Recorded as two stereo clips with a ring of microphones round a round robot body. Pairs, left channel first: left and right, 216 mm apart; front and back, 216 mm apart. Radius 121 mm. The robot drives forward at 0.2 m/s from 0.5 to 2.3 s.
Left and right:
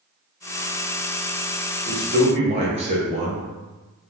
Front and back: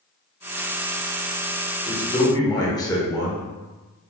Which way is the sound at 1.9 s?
50° right.